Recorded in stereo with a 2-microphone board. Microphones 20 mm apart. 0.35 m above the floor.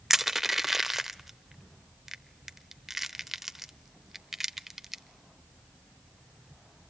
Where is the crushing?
10° right (ahead or behind), 0.7 m.